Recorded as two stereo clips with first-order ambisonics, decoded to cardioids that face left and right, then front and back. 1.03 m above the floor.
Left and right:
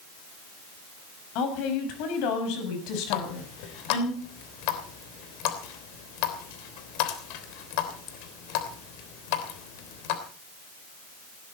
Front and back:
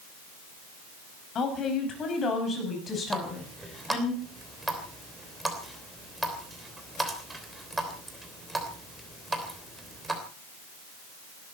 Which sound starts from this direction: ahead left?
A woman speaking, at 1.4 s.